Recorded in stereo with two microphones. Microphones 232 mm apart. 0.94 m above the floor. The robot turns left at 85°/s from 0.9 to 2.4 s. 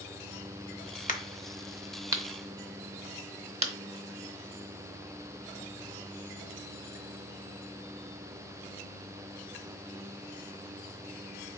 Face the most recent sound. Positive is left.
turn(degrees=-25)  # may be behind; listen again after turning